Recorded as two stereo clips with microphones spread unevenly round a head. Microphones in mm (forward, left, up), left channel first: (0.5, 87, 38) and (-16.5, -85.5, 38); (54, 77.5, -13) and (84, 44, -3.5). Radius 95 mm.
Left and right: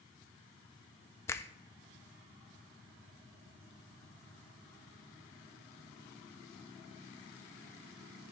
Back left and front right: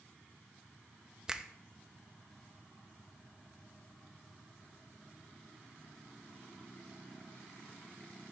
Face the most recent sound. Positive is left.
turn(degrees=35)